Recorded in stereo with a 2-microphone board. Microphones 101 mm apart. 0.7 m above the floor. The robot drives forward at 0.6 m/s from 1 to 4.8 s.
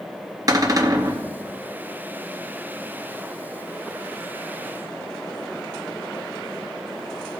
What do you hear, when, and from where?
0.5 s a cupboard door: 35° right (ahead or behind), 0.9 m; by 1.2 s 40° right (ahead or behind), 0.9 m